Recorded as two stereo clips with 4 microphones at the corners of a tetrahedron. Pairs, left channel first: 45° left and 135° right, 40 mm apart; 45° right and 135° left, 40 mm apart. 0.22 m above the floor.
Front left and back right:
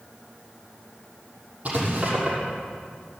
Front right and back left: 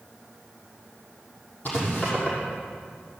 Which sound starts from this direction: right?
Writing, at 1.6 s.